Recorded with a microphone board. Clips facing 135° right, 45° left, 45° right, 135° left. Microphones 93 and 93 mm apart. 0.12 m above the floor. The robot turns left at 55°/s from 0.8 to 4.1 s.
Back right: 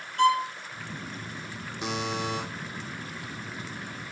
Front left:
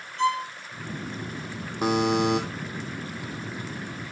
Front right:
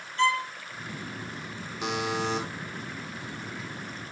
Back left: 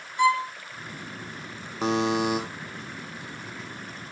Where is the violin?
150° right, 0.8 m.